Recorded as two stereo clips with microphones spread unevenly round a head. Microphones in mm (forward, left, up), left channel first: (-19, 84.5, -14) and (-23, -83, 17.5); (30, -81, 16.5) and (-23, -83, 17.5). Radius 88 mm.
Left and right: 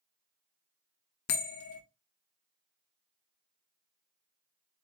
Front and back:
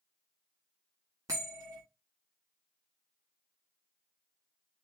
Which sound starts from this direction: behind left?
A bell, at 1.3 s.